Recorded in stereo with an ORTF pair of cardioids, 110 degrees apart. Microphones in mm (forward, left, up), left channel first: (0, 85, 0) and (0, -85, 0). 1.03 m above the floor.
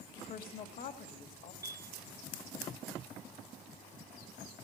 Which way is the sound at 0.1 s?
60° left.